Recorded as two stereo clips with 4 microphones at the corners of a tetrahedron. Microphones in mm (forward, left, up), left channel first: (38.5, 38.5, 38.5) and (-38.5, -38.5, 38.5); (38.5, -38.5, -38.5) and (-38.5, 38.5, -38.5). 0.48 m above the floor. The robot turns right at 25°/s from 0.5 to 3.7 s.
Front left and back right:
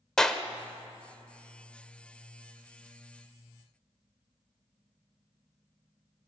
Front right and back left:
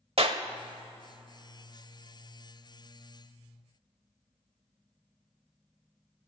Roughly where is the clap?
Behind left.